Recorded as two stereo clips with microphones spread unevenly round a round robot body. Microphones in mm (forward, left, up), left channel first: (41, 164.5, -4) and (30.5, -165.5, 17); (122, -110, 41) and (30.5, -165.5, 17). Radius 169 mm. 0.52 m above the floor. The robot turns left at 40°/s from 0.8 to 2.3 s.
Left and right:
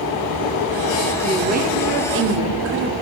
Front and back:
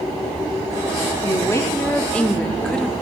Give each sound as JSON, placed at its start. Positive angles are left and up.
{"t": 1.2, "sound": "a woman speaking", "azimuth_deg": -25, "distance_m": 1.0}